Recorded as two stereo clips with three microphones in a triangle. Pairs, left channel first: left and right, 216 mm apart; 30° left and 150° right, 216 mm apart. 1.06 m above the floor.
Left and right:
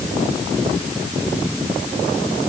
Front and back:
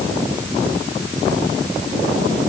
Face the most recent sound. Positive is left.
No sound to turn to.